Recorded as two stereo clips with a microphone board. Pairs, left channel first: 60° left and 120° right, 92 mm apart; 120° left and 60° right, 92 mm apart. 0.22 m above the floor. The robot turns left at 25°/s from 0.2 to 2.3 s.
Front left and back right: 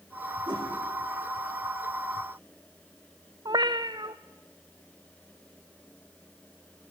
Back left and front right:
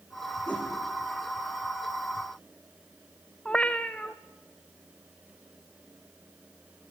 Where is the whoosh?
165° right, 7 m; by 0.7 s 170° right, 7 m.